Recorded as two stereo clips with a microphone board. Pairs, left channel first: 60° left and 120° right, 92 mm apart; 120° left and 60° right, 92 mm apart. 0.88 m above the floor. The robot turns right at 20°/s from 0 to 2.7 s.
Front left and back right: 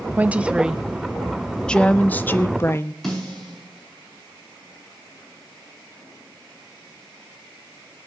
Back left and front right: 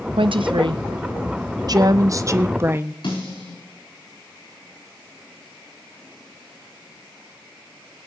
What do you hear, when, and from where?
0.2 s a woman speaking: 50° right, 0.6 m; by 2.9 s straight ahead, 0.6 m
3.0 s a snare drum: 145° left, 10 m